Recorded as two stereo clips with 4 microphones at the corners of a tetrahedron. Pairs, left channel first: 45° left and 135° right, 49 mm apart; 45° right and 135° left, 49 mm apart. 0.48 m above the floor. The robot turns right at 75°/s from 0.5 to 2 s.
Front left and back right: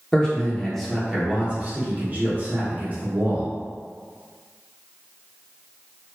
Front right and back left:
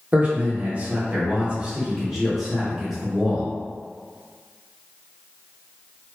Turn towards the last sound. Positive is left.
turn(degrees=-140)